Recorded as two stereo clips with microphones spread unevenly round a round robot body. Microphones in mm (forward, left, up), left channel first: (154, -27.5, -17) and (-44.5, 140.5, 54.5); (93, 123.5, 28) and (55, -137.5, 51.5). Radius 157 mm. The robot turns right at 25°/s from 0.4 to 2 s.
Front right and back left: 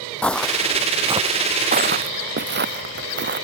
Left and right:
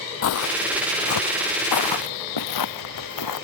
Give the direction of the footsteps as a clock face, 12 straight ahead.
10 o'clock.